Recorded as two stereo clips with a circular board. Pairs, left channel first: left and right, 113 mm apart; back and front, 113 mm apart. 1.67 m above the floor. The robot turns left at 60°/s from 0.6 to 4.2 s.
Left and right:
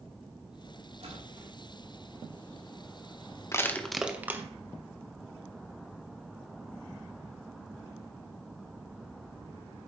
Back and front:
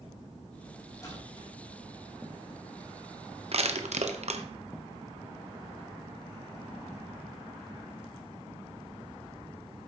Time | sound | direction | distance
1.0 | a splash | 120° right | 2.5 m
3.5 | crushing | 25° left | 0.7 m